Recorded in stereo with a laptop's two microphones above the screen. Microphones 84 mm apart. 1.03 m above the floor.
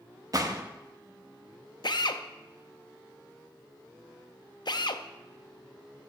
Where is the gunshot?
45° right (ahead or behind), 1.0 m.